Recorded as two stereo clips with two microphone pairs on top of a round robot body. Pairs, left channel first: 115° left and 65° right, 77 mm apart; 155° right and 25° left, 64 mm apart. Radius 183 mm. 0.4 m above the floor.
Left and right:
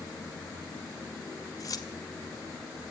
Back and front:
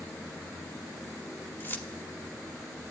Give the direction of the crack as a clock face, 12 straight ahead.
No crack in this recording.